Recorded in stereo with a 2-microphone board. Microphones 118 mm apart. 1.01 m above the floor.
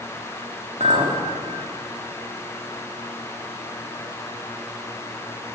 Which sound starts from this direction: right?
A clink, at 0.8 s.